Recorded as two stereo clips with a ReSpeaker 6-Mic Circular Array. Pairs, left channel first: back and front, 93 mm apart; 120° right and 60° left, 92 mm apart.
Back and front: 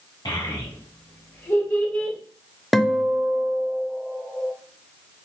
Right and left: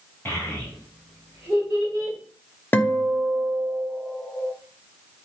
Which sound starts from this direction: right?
A guitar, at 2.7 s.